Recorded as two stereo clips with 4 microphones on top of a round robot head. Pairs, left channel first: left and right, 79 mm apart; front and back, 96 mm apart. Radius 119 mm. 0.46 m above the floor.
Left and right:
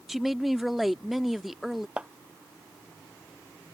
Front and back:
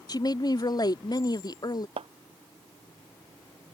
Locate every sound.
0.1 s a woman speaking: straight ahead
2.0 s a clap: 165° right